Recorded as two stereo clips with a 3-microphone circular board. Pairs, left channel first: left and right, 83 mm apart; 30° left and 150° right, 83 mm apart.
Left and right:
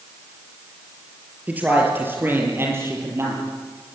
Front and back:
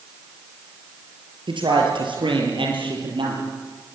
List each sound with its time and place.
1.5 s a man speaking: 160° right, 5.5 m; by 3.5 s 145° right, 8 m